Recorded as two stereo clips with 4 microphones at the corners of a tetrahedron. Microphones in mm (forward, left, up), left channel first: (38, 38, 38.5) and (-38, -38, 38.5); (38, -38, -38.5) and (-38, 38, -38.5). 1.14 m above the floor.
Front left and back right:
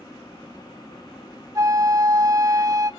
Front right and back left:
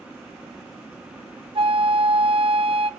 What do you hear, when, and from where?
1.6 s a flute: 170° left, 1.0 m